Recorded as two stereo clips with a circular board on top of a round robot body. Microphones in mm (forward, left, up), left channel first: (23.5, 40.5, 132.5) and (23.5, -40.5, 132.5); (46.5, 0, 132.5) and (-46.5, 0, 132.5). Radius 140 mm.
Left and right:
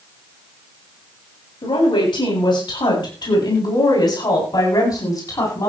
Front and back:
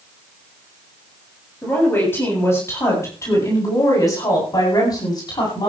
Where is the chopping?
I don't hear chopping.